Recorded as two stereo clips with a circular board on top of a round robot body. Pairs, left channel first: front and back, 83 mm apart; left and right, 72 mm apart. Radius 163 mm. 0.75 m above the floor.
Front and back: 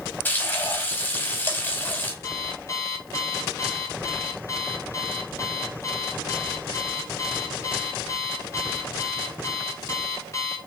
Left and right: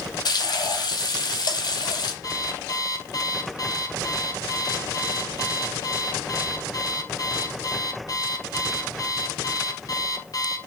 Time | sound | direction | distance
0.2 | frying | 65° left | 4.5 m
2.2 | an alarm clock | 55° left | 3 m